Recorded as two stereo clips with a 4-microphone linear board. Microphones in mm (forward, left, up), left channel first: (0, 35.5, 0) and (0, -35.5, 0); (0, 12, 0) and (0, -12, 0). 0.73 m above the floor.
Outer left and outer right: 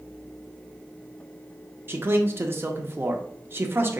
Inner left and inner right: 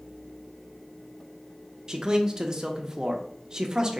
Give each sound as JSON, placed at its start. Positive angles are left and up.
{"t": 1.9, "sound": "a man speaking", "side_deg": -30, "distance_m": 0.8}